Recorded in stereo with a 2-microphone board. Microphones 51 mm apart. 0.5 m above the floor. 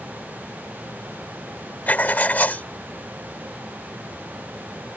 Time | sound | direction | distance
1.9 | writing | 35° left (ahead or behind) | ?